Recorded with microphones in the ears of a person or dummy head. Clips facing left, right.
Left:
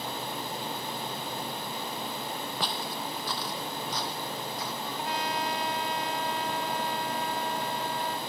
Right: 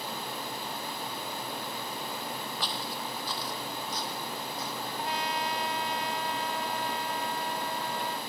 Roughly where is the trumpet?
Left.